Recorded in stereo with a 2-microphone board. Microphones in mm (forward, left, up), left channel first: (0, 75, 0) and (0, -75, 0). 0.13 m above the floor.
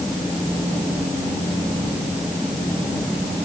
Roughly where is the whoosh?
No whoosh in this recording.